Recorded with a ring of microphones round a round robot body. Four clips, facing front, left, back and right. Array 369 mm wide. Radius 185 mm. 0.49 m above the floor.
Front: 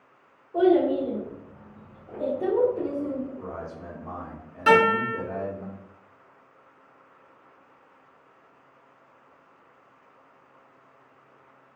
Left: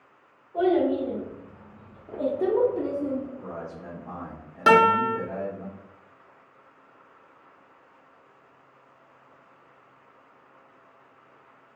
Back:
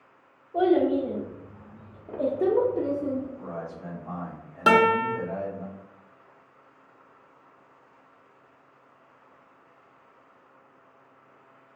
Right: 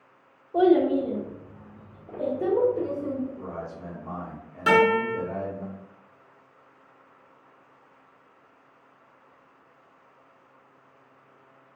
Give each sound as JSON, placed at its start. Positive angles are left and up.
{"t": 0.5, "sound": "a child speaking", "azimuth_deg": -90, "distance_m": 0.8}
{"t": 3.4, "sound": "a man speaking", "azimuth_deg": -30, "distance_m": 1.1}
{"t": 4.7, "sound": "a guitar", "azimuth_deg": 145, "distance_m": 0.5}